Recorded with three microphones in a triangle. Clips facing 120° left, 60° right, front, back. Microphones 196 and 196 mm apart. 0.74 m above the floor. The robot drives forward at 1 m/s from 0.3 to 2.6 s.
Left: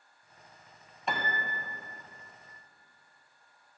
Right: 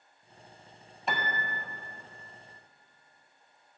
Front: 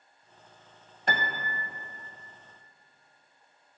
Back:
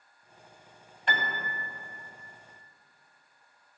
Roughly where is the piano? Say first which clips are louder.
Even, front 2 dB; ahead left.